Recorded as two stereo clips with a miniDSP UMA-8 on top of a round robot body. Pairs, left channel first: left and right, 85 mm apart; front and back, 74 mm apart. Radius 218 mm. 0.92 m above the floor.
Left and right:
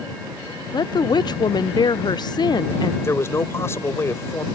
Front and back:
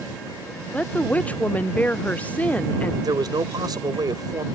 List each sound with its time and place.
0.7 s a woman speaking: 65° left
3.0 s a man speaking: 150° left